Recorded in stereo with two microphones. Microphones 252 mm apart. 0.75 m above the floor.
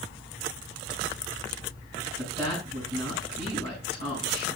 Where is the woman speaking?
20° left (ahead or behind), 5.5 m.